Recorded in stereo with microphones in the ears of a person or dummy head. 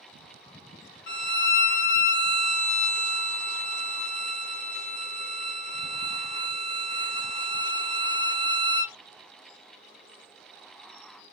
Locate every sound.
1.1 s a violin: 60° left (ahead or behind), 1.5 m